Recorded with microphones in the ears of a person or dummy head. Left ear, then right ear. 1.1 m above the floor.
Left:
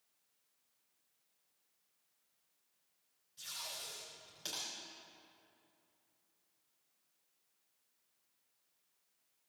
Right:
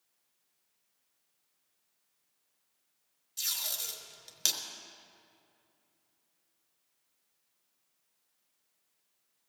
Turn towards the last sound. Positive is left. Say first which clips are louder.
# right 10 dB
turn(degrees=-55)  # may be behind; listen again after turning